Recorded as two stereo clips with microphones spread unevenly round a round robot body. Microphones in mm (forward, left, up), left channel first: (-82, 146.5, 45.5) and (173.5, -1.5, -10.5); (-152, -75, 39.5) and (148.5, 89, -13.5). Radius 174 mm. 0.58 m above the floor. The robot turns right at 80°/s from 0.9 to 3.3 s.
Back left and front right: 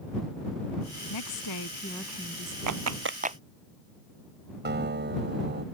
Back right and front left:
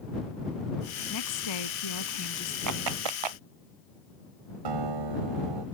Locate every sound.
1.1 s a woman speaking: 160° left; by 2.6 s 80° right
2.7 s a clap: 15° right; by 3.4 s 40° left
4.7 s a guitar: 25° left